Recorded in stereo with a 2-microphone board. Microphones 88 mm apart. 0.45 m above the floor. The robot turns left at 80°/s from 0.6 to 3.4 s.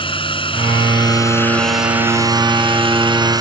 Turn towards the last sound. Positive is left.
turn(degrees=-135)